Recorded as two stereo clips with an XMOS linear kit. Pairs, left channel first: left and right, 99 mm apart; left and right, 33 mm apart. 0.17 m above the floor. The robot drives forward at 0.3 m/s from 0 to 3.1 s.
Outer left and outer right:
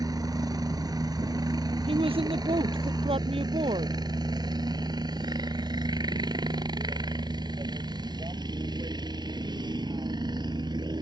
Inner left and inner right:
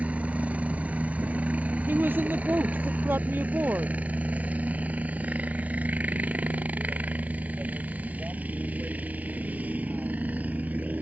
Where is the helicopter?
40° right (ahead or behind); by 11.0 s 45° right (ahead or behind).